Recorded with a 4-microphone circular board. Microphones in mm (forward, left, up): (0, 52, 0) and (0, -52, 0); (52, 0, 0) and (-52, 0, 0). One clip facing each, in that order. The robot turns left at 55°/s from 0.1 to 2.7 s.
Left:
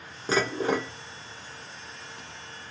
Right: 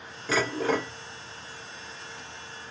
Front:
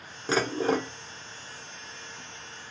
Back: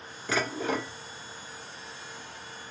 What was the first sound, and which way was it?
Dishes clattering, 50° left.